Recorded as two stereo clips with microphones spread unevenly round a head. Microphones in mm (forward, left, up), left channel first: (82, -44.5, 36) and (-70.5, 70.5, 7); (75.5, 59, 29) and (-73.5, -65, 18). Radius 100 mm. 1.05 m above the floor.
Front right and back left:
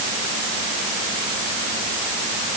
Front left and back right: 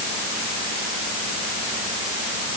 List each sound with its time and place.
Only background noise.